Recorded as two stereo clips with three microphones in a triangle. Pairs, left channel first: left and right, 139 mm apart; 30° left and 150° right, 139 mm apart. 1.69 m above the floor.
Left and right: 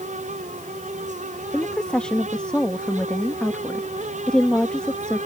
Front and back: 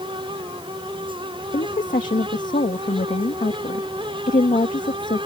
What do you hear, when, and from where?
1.5 s a woman speaking: 5° left